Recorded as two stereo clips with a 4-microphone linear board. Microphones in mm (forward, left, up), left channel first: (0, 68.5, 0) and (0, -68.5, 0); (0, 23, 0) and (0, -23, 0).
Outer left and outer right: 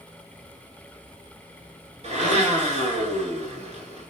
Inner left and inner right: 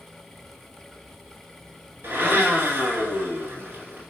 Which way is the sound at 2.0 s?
50° right (ahead or behind).